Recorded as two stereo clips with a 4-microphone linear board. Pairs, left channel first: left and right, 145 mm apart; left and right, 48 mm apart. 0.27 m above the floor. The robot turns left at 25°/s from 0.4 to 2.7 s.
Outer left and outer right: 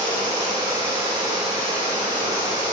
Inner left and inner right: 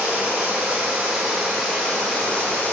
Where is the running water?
150° right, 1.6 m; by 2.7 s 150° left, 1.6 m.